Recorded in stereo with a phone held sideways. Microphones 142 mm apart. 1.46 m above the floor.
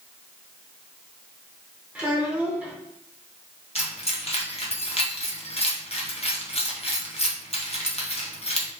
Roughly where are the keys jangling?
Left.